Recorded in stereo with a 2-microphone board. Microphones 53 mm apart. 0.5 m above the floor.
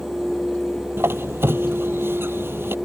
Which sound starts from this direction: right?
A squeak, at 1.0 s.